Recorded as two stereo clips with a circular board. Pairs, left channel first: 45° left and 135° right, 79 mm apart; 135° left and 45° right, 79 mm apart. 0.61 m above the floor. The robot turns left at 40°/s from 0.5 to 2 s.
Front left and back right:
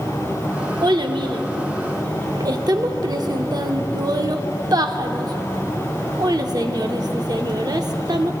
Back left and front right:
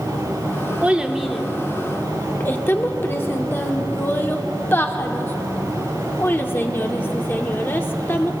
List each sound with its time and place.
0.8 s a child speaking: 115° right, 0.8 m; by 8.3 s 165° right, 0.8 m